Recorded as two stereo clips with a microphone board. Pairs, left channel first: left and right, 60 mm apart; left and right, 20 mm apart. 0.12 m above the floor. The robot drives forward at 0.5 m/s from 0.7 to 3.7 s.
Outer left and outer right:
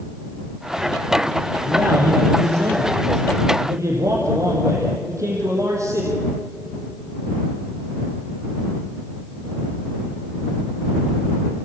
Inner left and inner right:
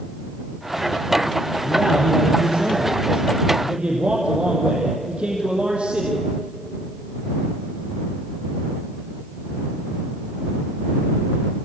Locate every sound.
1.6 s a man speaking: 50° right (ahead or behind), 4.5 m; by 6.2 s 60° right (ahead or behind), 4 m